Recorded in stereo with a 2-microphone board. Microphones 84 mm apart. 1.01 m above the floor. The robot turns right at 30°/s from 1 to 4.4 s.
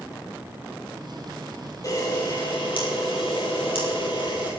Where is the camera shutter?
40° left, 7 m; by 4.5 s 115° left, 7 m.